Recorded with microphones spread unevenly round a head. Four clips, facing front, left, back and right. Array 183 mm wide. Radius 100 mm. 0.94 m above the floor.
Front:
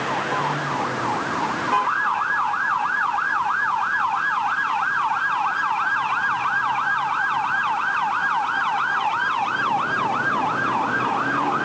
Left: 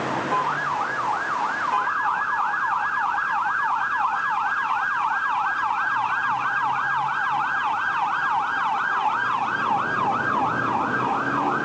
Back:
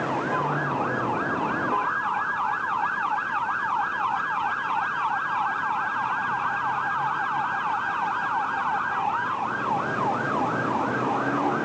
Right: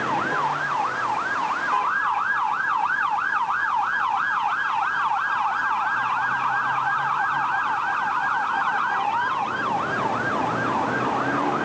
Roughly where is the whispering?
I don't hear whispering.